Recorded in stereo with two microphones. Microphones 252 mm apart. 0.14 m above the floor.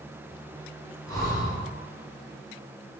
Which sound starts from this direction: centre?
Breathing, at 1.1 s.